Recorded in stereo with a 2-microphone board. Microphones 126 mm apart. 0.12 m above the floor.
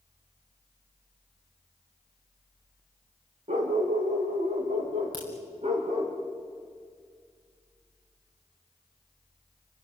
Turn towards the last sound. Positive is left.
turn(degrees=-45)  # may be behind; listen again after turning